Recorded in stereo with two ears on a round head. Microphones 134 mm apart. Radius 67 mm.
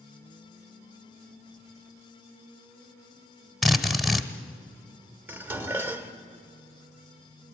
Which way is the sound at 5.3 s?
15° right (ahead or behind).